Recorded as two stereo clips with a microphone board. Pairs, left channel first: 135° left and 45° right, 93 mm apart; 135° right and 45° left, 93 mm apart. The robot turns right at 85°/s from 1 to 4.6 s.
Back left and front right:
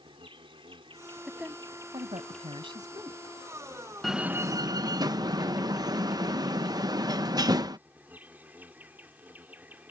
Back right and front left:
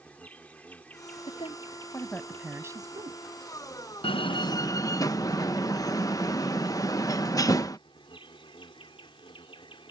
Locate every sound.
0.0 s an insect: 60° right; by 9.9 s 115° right
1.3 s a woman speaking: 135° right; by 3.2 s 30° left
4.0 s a door slam: 135° right; by 7.8 s 85° right